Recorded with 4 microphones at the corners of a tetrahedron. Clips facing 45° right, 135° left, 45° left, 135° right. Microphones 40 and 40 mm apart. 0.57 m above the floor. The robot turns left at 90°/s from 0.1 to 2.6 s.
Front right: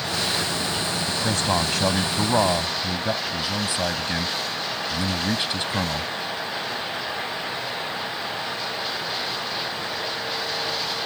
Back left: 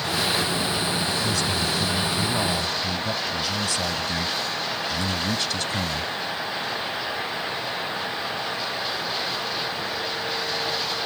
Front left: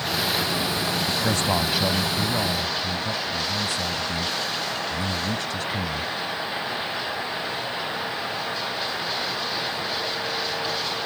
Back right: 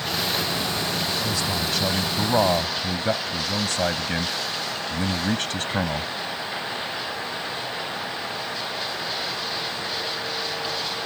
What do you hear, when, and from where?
1.1 s a man speaking: 30° left; by 6.1 s 110° right